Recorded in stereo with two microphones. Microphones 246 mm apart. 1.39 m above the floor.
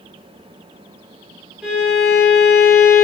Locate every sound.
1.6 s a violin: 5° right (ahead or behind), 1.8 m